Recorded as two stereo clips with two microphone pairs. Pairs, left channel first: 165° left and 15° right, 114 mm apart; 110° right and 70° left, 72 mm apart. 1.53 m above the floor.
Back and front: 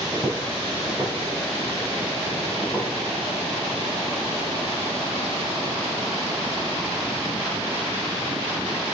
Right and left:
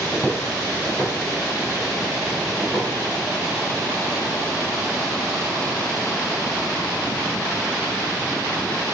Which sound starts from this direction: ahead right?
Footsteps, at 0.1 s.